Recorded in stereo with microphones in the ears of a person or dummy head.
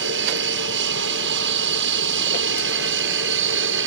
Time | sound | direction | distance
0.0 | an aircraft | 65° right (ahead or behind) | ?